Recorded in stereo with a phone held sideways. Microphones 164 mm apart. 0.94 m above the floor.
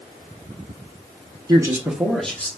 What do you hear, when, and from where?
1.5 s a man speaking: 25° right (ahead or behind), 0.9 m; by 2.5 s 10° left (ahead or behind), 1.4 m